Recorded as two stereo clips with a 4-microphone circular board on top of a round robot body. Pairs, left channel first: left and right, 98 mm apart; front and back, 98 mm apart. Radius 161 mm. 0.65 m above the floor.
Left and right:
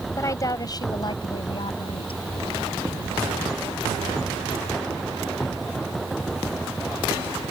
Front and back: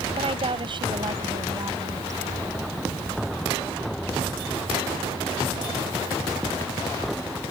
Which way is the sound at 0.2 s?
150° left.